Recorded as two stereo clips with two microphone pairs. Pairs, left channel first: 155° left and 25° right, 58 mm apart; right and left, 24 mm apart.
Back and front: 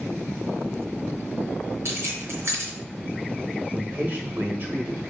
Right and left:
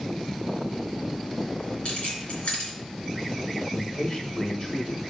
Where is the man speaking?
55° right, 1.7 m.